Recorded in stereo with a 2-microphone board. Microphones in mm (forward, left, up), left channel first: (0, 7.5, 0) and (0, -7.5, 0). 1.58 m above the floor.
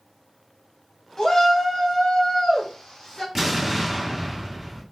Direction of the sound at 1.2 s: 40° left (ahead or behind).